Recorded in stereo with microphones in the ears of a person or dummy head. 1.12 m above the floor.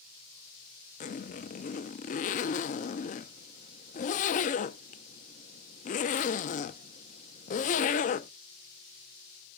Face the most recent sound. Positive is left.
turn(degrees=35)  # may be behind; listen again after turning